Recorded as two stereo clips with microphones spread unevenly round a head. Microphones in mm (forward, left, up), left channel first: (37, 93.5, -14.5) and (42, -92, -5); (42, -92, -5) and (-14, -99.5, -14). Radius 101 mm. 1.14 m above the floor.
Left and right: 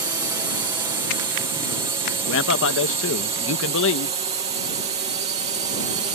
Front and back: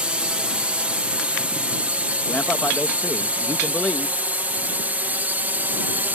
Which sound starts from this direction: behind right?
A drone, at 0.0 s.